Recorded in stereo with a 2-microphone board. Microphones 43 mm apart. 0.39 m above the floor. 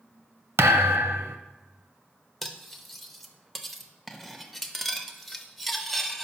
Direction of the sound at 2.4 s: 5° left (ahead or behind).